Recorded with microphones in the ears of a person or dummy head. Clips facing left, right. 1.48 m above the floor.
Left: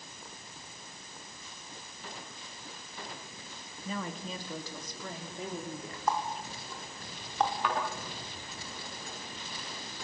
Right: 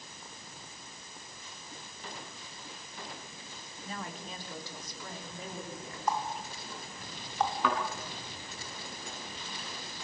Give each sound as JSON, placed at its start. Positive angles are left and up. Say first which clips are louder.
{"t": 3.9, "sound": "a woman speaking", "louder": "left 5 dB", "side_deg": 75, "distance_m": 3.0}
{"t": 6.1, "sound": "a running tap", "louder": "left 1 dB", "side_deg": 55, "distance_m": 2.5}
{"t": 7.6, "sound": "a thud", "louder": "right 1 dB", "side_deg": -75, "distance_m": 7.5}